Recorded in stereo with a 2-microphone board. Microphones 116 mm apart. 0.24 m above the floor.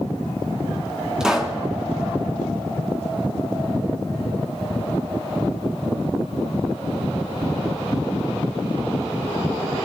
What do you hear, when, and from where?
1.2 s a pop: 5° right (ahead or behind), 2.5 m